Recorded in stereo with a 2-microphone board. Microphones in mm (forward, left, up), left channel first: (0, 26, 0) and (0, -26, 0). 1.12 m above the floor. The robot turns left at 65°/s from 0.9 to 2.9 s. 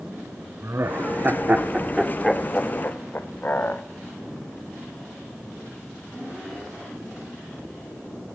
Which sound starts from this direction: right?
Laughter, at 0.6 s.